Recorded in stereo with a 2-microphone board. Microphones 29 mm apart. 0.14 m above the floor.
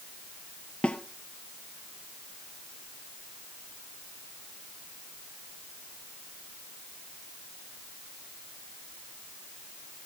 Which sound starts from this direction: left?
A snare drum, at 0.8 s.